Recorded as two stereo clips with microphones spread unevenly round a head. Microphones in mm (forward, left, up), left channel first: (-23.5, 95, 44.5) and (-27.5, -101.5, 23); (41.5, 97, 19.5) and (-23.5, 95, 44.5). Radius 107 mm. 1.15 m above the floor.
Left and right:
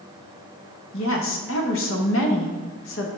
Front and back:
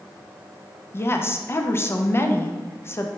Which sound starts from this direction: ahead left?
A woman speaking, at 0.9 s.